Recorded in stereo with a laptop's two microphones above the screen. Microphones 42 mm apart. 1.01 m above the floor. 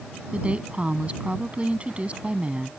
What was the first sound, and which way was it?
A woman speaking, 25° right (ahead or behind).